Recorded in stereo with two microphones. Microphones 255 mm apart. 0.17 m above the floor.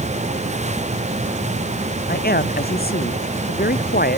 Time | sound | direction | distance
2.1 | a man speaking | 35° left (ahead or behind) | ?